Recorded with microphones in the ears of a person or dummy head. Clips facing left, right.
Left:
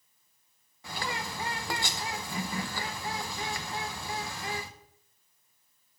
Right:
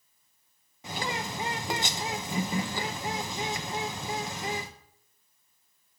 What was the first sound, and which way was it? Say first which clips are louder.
A bird: right 3 dB; 20° right (ahead or behind).